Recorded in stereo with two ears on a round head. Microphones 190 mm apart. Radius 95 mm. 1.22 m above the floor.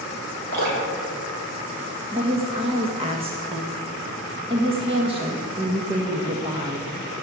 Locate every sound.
0.5 s dripping: 50° right (ahead or behind), 5.5 m
2.1 s a woman speaking: 25° right (ahead or behind), 1.2 m